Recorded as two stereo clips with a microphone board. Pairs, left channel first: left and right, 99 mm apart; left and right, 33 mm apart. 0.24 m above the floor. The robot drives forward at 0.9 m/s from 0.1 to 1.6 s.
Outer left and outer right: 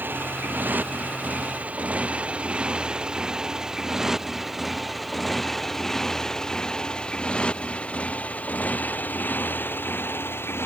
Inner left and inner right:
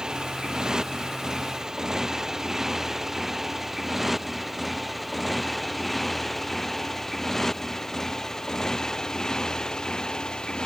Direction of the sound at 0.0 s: 20° right (ahead or behind).